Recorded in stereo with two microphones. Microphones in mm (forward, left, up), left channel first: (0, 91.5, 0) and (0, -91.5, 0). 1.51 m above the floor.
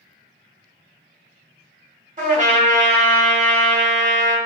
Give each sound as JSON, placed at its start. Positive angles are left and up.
{"t": 2.2, "sound": "a trumpet", "side_deg": -40, "distance_m": 1.2}